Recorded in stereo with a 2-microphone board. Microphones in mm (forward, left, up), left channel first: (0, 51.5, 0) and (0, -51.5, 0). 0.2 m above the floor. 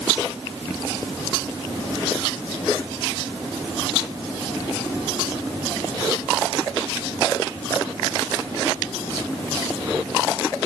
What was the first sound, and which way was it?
Only background noise.